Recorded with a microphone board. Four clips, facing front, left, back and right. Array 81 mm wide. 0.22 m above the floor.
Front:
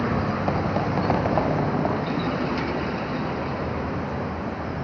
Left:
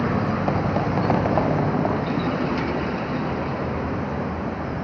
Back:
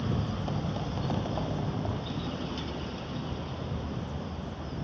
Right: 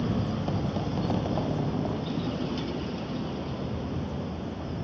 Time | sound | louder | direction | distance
0.0 | a vehicle | left 7 dB, front 9 dB | 50° left | ?